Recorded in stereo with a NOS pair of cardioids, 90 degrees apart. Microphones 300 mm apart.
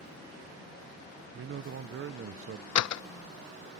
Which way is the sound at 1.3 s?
45° right.